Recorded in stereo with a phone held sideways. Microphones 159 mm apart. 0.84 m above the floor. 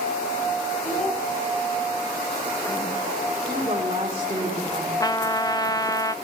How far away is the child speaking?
About 8.5 m.